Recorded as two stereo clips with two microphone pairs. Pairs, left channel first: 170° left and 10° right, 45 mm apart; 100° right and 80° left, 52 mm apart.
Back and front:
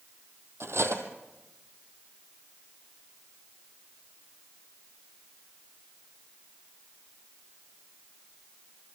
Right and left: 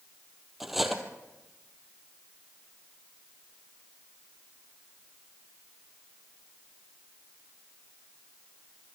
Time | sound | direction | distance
0.6 | cutlery clinking | 10° right | 2 m